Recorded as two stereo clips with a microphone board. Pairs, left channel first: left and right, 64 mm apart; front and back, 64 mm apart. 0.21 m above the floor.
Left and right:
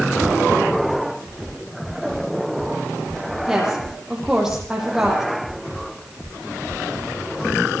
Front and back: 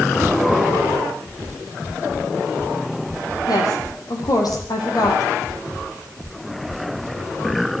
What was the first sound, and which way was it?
A woman speaking, 5° right.